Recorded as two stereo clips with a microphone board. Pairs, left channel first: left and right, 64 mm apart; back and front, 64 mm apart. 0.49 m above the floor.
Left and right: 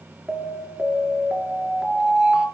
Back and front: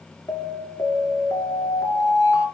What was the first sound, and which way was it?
An alarm, 165° right.